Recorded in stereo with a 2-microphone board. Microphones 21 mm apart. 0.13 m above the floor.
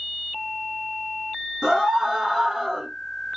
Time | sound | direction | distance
1.6 | a scream | 35° right (ahead or behind) | 2.0 m